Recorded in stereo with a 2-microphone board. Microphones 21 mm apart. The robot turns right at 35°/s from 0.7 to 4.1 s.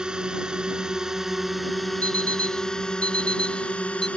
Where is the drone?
40° right; by 4.2 s 80° left.